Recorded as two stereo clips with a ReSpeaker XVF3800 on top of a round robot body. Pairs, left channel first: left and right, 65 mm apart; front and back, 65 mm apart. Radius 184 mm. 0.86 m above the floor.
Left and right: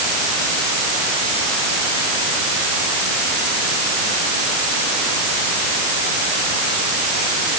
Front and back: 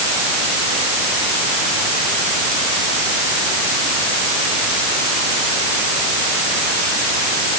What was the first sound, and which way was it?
Only background noise.